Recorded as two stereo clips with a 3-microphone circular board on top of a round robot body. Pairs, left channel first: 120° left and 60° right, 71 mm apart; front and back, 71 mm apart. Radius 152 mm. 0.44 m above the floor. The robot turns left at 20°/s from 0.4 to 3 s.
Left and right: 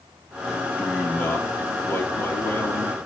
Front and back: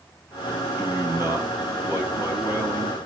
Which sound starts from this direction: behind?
A man speaking, at 0.8 s.